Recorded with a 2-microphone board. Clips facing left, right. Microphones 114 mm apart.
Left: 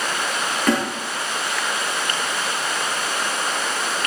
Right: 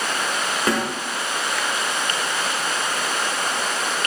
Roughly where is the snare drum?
Centre.